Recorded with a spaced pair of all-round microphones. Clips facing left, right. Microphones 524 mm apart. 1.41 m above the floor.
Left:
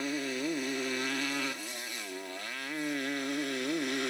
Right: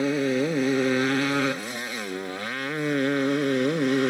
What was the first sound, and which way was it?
A motorcycle, 80° right.